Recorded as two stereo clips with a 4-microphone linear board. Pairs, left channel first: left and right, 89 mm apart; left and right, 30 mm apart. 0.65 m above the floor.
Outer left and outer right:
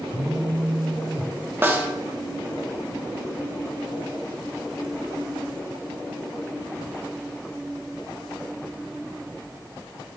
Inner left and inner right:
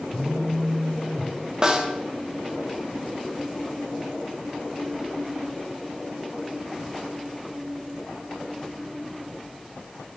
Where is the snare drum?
25° right (ahead or behind), 1.3 m.